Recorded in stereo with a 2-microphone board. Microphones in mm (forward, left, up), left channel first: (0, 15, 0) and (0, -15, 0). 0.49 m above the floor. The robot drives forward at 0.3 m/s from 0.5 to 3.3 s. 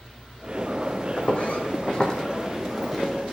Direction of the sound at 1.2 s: 60° left (ahead or behind).